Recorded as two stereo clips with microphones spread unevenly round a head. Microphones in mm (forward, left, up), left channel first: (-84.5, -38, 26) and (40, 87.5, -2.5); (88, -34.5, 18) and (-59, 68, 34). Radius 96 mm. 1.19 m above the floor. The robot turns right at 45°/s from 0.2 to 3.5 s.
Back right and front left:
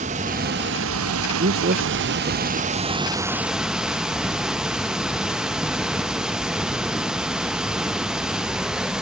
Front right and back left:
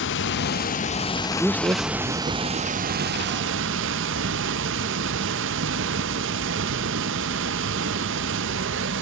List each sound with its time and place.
0.0 s running water: 15° right, 0.7 m; by 9.0 s 135° left, 0.7 m
1.4 s a man speaking: 55° left, 0.8 m; by 2.7 s 110° left, 0.8 m